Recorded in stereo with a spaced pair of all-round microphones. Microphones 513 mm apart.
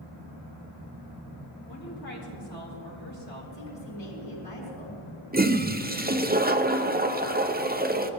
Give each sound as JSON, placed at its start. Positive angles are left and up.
{"t": 1.7, "sound": "a woman speaking", "side_deg": 50, "distance_m": 6.0}
{"t": 3.5, "sound": "a woman speaking", "side_deg": 85, "distance_m": 4.5}
{"t": 5.3, "sound": "a toilet flushing", "side_deg": -20, "distance_m": 0.7}